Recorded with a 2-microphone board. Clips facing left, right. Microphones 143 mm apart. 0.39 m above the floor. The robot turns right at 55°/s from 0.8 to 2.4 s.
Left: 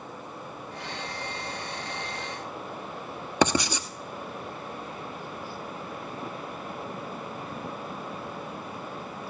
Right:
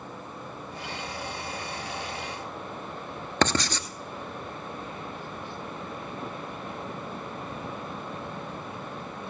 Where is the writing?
10° left (ahead or behind), 1.1 m.